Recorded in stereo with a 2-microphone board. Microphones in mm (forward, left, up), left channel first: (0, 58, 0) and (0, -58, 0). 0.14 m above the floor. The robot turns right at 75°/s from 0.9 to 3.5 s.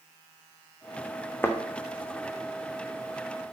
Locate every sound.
1.4 s a thud: 20° left (ahead or behind), 1.0 m; by 1.6 s 5° left (ahead or behind), 1.0 m